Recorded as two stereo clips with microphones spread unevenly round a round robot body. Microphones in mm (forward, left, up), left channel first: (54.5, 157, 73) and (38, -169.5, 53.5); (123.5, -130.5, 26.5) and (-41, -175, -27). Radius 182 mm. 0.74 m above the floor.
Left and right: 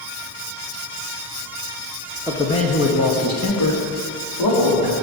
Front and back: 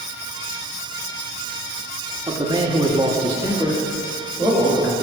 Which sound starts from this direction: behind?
A man speaking, at 2.3 s.